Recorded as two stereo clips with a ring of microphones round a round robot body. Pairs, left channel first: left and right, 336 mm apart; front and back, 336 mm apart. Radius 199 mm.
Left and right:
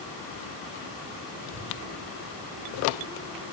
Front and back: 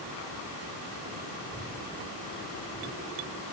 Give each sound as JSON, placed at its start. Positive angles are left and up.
{"t": 1.4, "sound": "a child speaking", "azimuth_deg": 85, "distance_m": 1.8}